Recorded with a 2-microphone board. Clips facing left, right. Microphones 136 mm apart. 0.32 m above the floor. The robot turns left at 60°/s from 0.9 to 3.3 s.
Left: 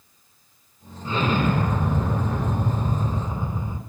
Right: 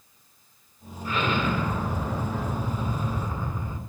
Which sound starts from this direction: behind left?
An explosion, at 1.1 s.